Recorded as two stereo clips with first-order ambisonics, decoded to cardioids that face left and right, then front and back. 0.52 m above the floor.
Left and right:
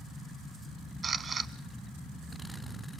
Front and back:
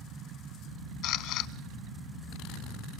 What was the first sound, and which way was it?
A camera shutter, 25° right.